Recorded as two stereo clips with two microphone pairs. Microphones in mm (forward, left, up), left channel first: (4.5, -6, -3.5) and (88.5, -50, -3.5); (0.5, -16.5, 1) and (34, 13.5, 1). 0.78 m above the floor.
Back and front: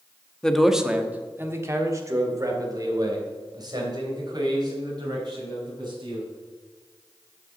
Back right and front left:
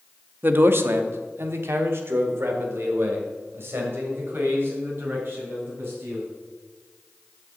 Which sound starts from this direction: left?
A man speaking, at 0.4 s.